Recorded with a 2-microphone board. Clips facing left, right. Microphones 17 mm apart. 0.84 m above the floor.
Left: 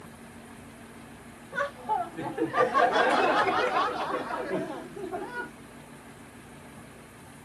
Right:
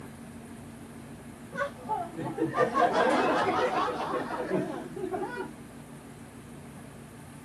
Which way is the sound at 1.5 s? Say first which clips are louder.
Left 3 dB; 55° left (ahead or behind).